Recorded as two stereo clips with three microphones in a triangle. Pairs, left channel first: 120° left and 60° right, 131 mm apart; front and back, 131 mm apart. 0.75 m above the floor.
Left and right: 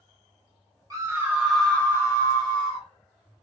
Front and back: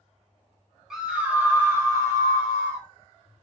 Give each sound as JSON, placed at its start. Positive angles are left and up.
{"t": 0.9, "sound": "a scream", "azimuth_deg": -95, "distance_m": 1.0}